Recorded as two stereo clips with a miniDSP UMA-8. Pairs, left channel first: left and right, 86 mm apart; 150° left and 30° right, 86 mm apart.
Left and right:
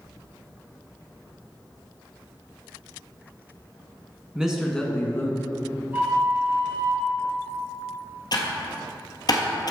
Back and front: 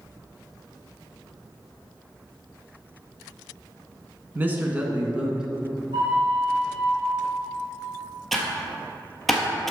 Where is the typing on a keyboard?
60° left, 1.2 m.